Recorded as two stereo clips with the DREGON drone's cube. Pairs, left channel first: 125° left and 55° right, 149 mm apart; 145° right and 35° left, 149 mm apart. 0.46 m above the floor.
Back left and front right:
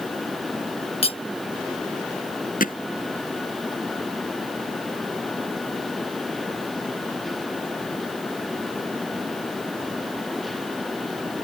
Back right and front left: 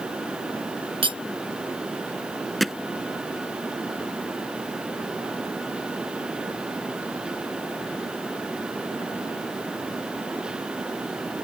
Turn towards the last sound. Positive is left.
turn(degrees=125)